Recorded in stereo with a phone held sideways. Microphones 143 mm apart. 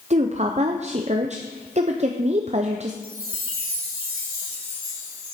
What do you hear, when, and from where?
0.1 s a woman speaking: 50° right (ahead or behind), 0.6 m
3.0 s a chime: 80° right, 2.5 m